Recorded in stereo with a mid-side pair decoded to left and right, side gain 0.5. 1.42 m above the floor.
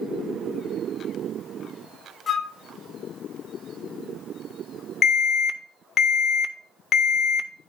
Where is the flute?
40° left, 1.0 m.